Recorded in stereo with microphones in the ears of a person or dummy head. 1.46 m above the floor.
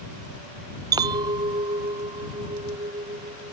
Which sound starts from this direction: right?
A clink, at 0.9 s.